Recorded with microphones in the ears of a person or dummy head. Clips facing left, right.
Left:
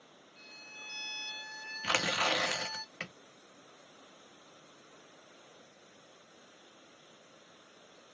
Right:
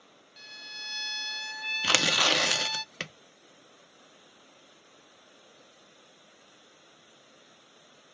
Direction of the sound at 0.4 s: 75° right (ahead or behind).